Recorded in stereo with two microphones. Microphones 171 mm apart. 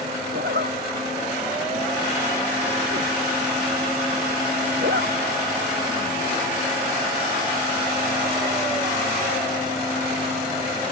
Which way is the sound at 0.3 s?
75° right (ahead or behind).